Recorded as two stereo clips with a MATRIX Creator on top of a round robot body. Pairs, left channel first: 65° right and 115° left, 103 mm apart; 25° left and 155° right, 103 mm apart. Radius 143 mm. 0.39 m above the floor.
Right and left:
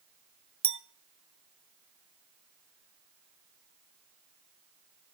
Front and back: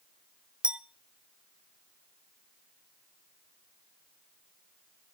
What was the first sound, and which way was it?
A clink, 120° left.